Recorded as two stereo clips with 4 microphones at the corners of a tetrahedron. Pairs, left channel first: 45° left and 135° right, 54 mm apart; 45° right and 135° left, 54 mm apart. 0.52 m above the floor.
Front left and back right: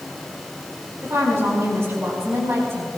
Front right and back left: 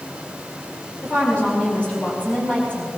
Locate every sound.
1.0 s a woman speaking: 110° right, 5 m